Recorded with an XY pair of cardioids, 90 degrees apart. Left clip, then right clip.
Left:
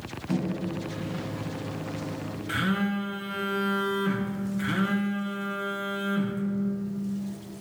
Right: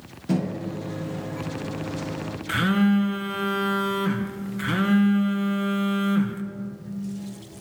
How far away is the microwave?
About 0.8 m.